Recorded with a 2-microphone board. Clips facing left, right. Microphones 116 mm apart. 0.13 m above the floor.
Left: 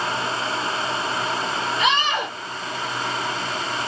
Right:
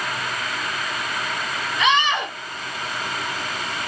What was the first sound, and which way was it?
A scream, 35° left (ahead or behind).